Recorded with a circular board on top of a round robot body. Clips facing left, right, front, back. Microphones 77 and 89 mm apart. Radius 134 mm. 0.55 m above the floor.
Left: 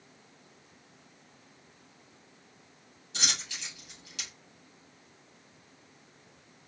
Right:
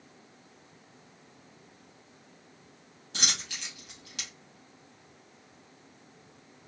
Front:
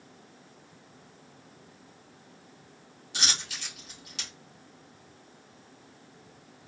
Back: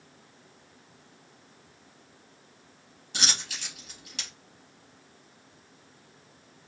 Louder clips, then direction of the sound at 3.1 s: Right 1 dB, back 1 dB; 130° right.